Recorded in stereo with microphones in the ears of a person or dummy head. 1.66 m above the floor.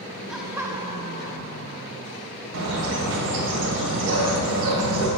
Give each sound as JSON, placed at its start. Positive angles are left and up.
{"t": 0.3, "sound": "laughter", "side_deg": 0, "distance_m": 1.1}
{"t": 2.5, "sound": "a bird", "side_deg": -75, "distance_m": 1.7}